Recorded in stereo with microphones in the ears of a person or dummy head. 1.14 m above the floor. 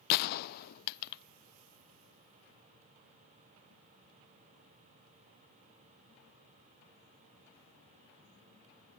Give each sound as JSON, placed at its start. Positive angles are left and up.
{"t": 0.1, "sound": "a gunshot", "side_deg": 55, "distance_m": 0.5}